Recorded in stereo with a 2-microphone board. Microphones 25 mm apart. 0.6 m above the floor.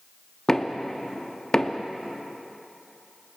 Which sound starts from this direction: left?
Knocking, at 0.5 s.